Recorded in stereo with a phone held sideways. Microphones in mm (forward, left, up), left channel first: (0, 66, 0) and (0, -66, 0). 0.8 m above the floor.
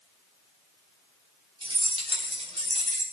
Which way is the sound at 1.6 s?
40° right (ahead or behind).